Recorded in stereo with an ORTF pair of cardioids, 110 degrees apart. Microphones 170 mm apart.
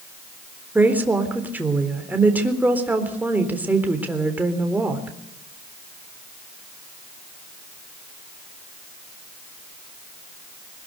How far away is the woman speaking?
About 4 m.